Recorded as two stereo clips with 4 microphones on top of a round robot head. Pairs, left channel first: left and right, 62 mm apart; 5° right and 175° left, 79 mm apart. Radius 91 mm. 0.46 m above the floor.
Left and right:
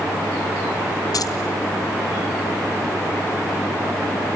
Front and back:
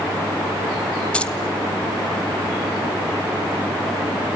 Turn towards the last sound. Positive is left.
turn(degrees=70)